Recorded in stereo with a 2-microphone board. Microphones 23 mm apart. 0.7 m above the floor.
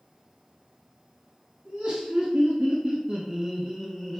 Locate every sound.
1.6 s laughter: 65° right (ahead or behind), 1.4 m; by 4.2 s 15° left (ahead or behind), 0.6 m